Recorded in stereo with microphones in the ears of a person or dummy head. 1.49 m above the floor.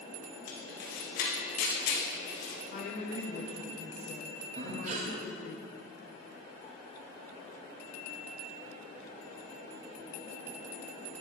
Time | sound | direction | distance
0.5 | a camera shutter | 70° left (ahead or behind) | 2 m
2.7 | a woman speaking | 45° left (ahead or behind) | 0.8 m
4.5 | breathing | 45° right (ahead or behind) | 1.6 m